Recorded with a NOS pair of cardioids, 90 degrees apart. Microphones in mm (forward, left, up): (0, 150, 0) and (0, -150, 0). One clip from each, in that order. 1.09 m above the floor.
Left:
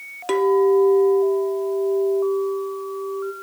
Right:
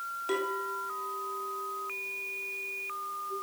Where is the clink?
65° left, 2.5 m.